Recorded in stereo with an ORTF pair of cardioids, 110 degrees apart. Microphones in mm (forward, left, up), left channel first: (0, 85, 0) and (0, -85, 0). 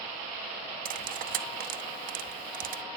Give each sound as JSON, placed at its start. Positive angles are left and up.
{"t": 0.8, "sound": "cutlery clinking", "azimuth_deg": -60, "distance_m": 0.7}